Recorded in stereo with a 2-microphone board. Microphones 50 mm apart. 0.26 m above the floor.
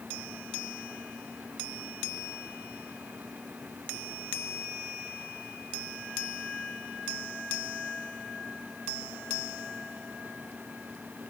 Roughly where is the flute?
I don't hear a flute.